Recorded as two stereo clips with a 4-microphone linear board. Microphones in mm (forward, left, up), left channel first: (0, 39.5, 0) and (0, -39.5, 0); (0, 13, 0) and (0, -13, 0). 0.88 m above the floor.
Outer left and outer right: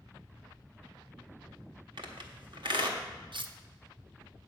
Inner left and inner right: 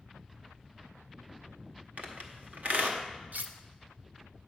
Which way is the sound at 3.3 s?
80° right.